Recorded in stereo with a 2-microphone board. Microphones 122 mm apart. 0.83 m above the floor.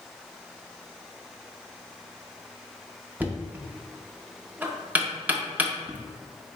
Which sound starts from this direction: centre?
Knocking, at 3.2 s.